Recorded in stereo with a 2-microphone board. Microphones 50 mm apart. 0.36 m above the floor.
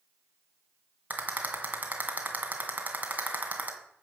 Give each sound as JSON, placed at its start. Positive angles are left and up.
{"t": 1.1, "sound": "a rattle", "side_deg": -35, "distance_m": 2.5}